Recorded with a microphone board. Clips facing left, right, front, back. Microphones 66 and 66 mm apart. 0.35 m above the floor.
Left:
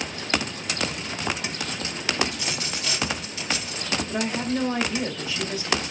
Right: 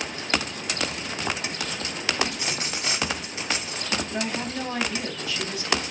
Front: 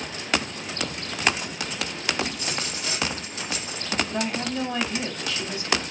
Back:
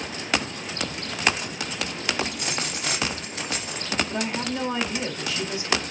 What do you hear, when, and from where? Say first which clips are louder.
2.3 s a dropped coin: even, back 1 dB; 150° right, 1.3 m
4.1 s a woman speaking: left 3 dB, even; 120° left, 1.5 m